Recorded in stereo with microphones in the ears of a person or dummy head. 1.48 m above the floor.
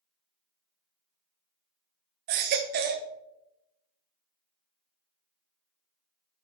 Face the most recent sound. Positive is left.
turn(degrees=-45)  # may be behind; listen again after turning